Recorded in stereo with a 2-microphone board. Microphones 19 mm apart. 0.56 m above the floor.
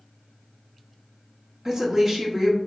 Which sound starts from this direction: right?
A woman speaking, at 1.6 s.